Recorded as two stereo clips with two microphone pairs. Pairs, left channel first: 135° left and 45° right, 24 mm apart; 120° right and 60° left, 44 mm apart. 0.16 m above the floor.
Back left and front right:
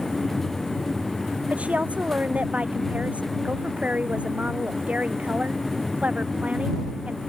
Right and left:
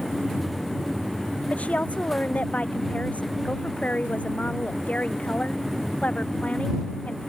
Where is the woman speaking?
60° right.